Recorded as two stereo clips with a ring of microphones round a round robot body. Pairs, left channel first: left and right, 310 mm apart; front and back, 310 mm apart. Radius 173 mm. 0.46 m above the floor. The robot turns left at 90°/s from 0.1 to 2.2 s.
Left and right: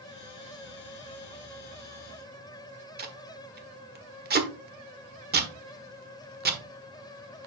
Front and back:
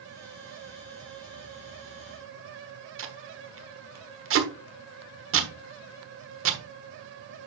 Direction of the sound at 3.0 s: 145° right.